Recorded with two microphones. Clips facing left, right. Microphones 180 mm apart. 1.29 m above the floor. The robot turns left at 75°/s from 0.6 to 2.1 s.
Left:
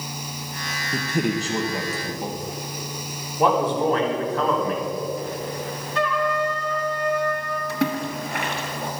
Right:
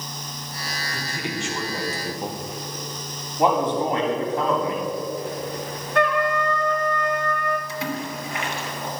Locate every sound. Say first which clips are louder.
0.9 s a man speaking: left 9 dB; 75° left, 0.9 m; by 2.4 s 10° right, 0.9 m
3.4 s a man speaking: even; 25° right (ahead or behind), 2.5 m
6.0 s a trumpet: right 2 dB; 60° right (ahead or behind), 0.9 m
7.7 s a splash: left 4 dB; 55° left (ahead or behind), 1.6 m